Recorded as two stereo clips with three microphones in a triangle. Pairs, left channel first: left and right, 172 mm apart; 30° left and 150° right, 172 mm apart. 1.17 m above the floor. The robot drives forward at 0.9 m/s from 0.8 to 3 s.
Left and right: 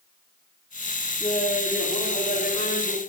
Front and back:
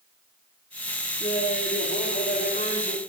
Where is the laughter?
50° left, 3 m; by 3.0 s 85° left, 2.5 m.